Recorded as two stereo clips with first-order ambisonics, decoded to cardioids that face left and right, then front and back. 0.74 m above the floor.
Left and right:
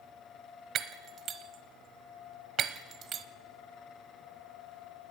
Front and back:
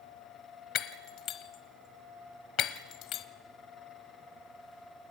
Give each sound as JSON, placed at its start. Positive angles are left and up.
{"t": 0.8, "sound": "breaking glass", "azimuth_deg": -35, "distance_m": 0.9}